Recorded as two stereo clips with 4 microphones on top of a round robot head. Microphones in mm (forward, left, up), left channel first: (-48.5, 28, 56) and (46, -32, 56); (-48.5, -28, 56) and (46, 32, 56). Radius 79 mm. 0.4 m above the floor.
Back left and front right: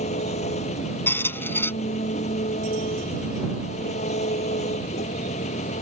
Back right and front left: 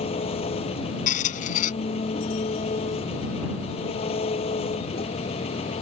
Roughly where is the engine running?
Behind.